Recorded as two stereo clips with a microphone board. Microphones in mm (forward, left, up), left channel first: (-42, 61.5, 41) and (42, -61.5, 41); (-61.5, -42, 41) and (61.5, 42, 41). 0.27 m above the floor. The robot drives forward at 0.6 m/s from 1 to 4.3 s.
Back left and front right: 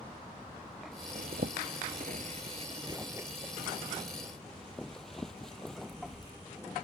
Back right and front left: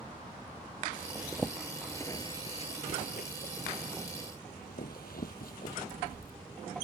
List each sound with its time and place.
1.1 s a zipper: 45° right; by 6.3 s 150° right